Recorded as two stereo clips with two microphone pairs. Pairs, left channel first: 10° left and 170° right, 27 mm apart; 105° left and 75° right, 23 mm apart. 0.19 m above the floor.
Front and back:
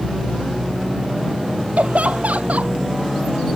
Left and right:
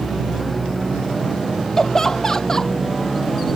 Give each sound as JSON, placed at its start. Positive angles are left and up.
{"t": 1.8, "sound": "laughter", "azimuth_deg": 175}